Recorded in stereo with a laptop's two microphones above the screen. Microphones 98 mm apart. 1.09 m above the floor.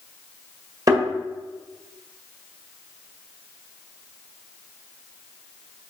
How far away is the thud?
About 1.7 m.